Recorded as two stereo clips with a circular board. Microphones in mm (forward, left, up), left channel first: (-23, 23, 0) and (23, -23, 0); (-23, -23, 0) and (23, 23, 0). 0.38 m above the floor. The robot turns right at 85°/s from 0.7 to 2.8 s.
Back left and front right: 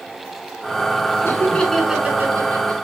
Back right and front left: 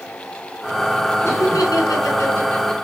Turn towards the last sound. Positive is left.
turn(degrees=-50)